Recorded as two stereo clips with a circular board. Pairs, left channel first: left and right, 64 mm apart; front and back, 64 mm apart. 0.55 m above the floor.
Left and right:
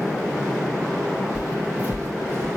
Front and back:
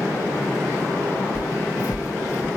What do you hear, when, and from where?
1.4 s footsteps: 20° right, 3 m; by 2.5 s 35° right, 3.5 m